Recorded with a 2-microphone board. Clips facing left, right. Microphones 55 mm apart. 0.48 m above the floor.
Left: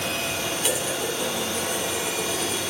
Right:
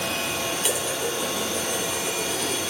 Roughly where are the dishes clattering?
Centre.